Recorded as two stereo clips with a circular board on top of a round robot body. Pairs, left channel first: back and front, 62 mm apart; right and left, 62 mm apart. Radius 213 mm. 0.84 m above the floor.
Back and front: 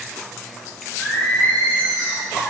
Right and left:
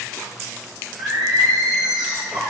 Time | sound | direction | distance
1.0 | singing | 115° left | 1.1 m